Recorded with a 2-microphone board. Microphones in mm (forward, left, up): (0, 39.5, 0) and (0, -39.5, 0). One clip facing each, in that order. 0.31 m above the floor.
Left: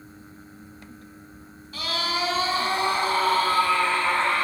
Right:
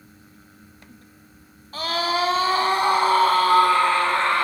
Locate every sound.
1.7 s a scream: 45° right (ahead or behind), 1.6 m; by 4.5 s 65° right (ahead or behind), 2.5 m